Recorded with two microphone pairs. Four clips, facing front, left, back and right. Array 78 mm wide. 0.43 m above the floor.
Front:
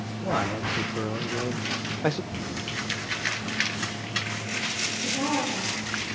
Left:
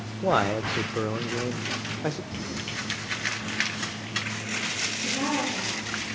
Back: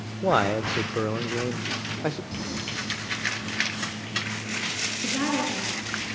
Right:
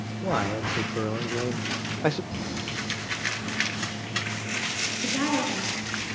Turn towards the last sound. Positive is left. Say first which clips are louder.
# right 2 dB, back 1 dB
turn(degrees=-135)